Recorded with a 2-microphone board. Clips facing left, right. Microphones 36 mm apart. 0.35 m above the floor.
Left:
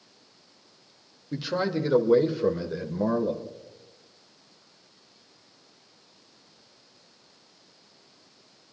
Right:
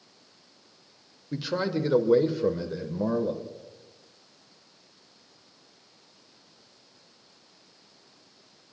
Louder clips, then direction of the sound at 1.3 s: Left 1 dB; 5° right (ahead or behind).